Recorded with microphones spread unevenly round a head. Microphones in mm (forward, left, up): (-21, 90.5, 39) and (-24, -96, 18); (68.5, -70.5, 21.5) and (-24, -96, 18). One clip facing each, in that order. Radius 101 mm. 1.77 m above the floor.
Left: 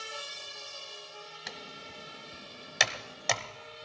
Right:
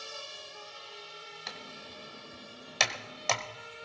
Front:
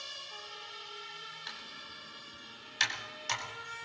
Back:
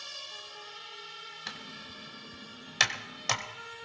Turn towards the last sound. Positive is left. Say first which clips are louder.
# right 1 dB, back 3 dB
turn(degrees=170)